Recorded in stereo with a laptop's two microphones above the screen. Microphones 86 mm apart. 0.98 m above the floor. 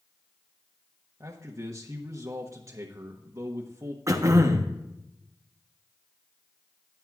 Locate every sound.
1.2 s a man speaking: 40° right (ahead or behind), 1.1 m
4.1 s throat clearing: 35° right (ahead or behind), 1.0 m